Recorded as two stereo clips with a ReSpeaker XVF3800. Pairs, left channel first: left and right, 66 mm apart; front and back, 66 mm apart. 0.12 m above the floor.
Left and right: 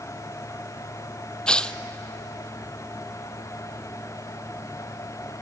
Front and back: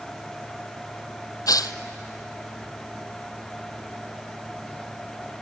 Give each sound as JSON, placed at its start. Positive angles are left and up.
{"t": 1.5, "sound": "tearing paper", "azimuth_deg": 15, "distance_m": 0.6}